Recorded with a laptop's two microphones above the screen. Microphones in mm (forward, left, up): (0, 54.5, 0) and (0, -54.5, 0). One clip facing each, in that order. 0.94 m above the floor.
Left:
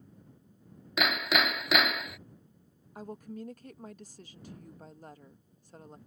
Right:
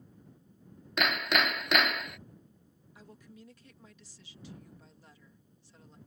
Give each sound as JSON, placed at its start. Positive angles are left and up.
{"t": 1.0, "sound": "hammering", "side_deg": 5}
{"t": 3.0, "sound": "a woman speaking", "side_deg": 45}